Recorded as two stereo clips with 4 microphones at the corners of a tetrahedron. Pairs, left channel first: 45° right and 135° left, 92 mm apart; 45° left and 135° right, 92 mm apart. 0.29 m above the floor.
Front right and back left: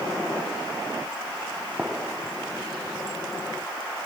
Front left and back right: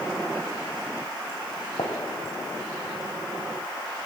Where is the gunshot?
60° left, 2.0 m.